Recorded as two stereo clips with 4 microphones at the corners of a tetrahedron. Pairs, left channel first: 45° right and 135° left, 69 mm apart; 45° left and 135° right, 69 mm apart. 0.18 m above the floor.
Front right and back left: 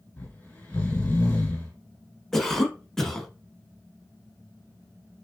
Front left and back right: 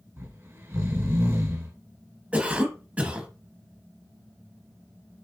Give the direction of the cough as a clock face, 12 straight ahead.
4 o'clock.